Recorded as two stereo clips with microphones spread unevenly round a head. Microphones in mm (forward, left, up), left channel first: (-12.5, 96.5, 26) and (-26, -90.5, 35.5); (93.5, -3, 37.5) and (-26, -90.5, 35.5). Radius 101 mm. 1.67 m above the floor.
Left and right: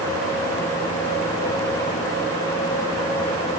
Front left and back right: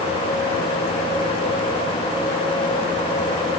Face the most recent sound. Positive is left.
No sound to turn to.